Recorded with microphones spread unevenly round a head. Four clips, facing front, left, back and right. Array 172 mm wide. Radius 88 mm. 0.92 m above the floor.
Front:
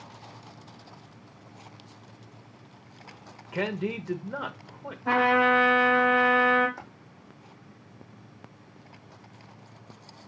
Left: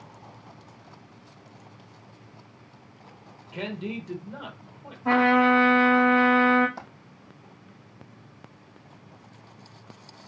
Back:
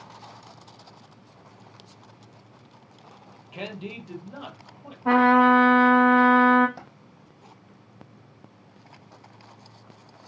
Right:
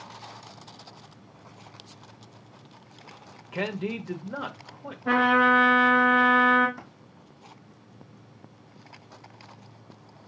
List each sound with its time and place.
3.5 s a man speaking: 35° right, 1.1 m
5.0 s a trumpet: 160° left, 2.5 m
6.8 s a dropped coin: 135° left, 3 m